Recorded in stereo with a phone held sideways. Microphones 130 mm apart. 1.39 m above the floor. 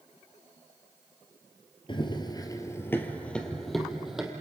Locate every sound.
1.9 s running footsteps: 40° left (ahead or behind), 1.7 m; by 4.3 s 5° right (ahead or behind), 3 m